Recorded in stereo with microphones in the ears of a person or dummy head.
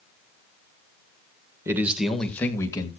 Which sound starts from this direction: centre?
A man speaking, at 1.6 s.